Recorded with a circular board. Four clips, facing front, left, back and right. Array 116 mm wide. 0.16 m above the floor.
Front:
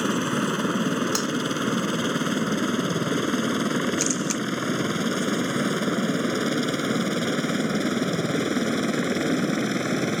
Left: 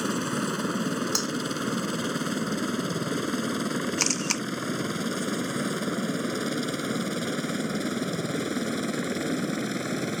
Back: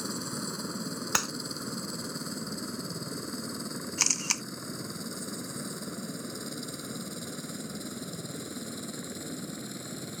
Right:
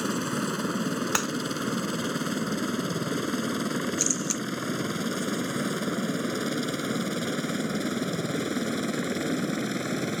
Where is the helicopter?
5° left.